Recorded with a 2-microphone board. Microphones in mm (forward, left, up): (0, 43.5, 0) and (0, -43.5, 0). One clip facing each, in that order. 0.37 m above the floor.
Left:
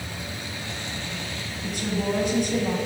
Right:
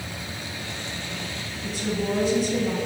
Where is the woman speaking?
55° left (ahead or behind), 2.5 m.